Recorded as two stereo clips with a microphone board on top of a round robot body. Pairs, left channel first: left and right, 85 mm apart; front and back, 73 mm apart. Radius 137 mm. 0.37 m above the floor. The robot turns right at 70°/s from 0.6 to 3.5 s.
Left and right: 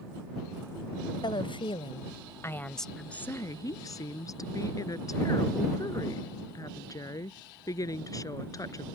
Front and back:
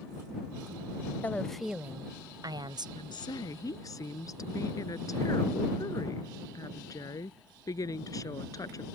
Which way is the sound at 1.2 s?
65° left.